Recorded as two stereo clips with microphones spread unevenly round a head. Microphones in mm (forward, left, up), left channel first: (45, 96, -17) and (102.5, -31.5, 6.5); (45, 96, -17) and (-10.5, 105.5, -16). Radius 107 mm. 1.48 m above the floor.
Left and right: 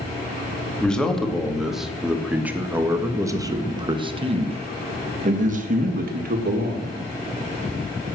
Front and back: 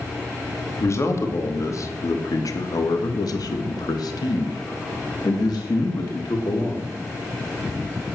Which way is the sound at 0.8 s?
30° left.